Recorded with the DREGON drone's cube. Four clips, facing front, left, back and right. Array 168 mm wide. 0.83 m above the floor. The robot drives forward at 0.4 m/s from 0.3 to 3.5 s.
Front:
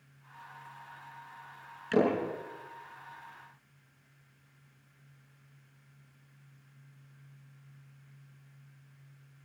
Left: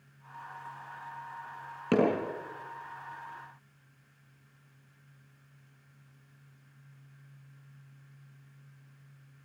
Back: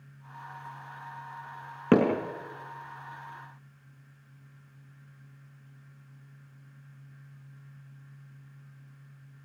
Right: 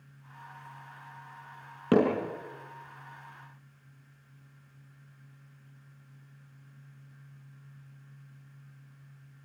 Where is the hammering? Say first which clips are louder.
Right 2 dB, back 4 dB; 165° right, 6.5 m.